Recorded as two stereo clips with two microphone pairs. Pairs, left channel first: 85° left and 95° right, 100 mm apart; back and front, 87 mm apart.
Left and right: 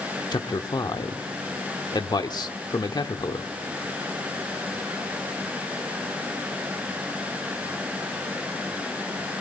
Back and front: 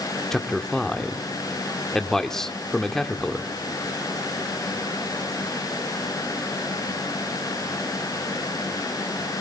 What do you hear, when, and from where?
0.3 s a man speaking: 95° left, 1.2 m